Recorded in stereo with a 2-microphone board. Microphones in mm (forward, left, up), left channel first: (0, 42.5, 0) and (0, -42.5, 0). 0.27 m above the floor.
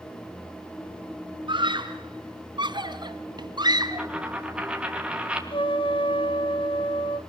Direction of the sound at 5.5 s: 75° left (ahead or behind).